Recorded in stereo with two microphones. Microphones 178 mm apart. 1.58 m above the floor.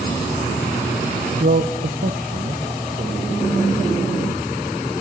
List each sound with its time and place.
1.4 s a man speaking: 60° right (ahead or behind), 0.8 m; by 3.4 s 55° right (ahead or behind), 2.5 m